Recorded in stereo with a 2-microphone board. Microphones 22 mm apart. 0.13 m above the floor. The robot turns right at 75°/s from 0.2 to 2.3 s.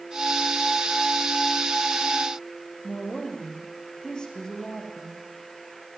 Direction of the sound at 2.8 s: 35° left (ahead or behind).